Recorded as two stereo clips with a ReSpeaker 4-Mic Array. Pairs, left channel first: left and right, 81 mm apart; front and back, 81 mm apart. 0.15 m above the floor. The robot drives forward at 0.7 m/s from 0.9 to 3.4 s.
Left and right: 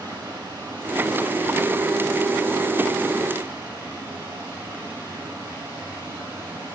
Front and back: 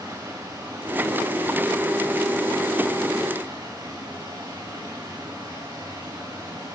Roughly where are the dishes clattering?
I don't hear dishes clattering.